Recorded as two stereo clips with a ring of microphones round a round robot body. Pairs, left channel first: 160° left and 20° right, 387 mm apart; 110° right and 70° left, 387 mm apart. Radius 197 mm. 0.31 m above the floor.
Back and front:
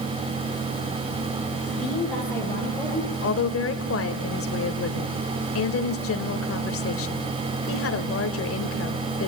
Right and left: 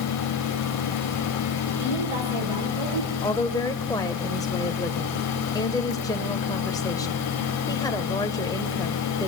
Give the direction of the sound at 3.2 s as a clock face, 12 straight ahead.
6 o'clock.